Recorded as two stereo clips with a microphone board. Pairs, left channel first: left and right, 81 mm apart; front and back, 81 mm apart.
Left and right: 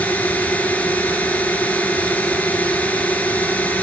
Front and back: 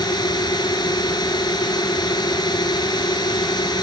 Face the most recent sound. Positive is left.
turn(degrees=20)